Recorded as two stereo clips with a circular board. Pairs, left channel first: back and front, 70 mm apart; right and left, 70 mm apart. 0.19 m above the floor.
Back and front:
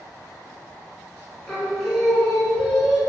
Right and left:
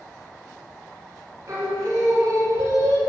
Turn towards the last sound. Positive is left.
turn(degrees=90)